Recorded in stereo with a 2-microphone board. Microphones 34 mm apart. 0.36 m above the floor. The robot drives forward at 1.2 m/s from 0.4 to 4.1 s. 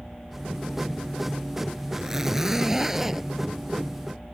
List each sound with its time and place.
1.9 s a zipper: 10° right (ahead or behind)